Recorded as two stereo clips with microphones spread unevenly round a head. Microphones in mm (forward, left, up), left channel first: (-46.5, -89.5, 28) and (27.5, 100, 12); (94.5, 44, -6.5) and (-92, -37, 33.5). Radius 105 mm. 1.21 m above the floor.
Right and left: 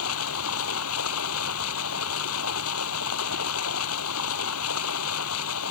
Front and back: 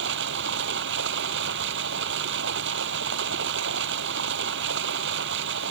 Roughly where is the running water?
Behind right.